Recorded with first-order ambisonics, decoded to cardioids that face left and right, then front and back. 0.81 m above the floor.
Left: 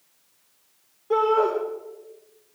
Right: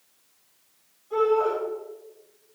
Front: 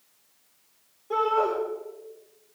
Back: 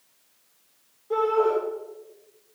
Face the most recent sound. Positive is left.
turn(degrees=80)